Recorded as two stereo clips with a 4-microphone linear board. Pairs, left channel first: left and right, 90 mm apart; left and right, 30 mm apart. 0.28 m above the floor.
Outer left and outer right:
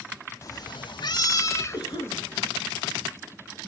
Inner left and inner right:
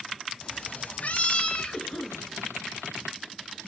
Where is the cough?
55° left (ahead or behind), 4 m.